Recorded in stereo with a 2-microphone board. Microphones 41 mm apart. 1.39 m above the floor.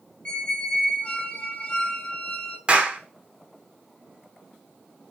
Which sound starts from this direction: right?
A clap, at 2.7 s.